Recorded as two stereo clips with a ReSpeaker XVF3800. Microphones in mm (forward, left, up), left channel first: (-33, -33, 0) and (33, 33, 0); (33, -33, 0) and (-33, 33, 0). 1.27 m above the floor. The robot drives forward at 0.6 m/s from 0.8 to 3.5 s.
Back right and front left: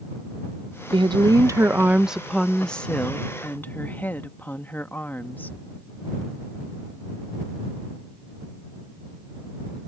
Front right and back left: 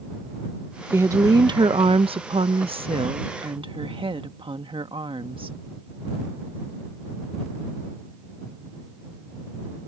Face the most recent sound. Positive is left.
turn(degrees=155)